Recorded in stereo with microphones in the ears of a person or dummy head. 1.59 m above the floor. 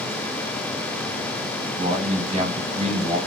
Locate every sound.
1.6 s a man speaking: 40° right (ahead or behind), 5.5 m